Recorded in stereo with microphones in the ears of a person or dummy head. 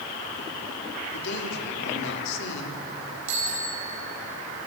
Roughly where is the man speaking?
Left.